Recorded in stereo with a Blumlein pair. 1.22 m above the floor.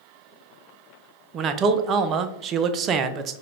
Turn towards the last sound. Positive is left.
turn(degrees=-30)